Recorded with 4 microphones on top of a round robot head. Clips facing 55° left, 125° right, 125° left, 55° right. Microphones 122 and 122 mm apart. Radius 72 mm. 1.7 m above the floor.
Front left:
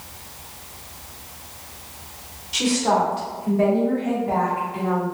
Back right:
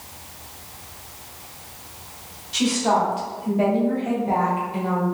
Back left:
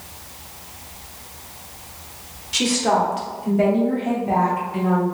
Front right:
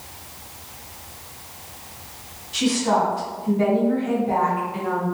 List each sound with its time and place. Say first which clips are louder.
2.5 s a woman speaking: even, back left 1 dB; 140° left, 1.0 m; by 5.0 s straight behind, 1.9 m